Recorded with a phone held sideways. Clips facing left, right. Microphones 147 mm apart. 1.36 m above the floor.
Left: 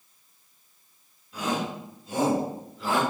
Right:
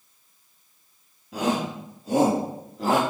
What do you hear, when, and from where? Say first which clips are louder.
1.3 s a shout: right 4 dB; 80° right, 4 m; by 3.0 s 65° right (ahead or behind), 3 m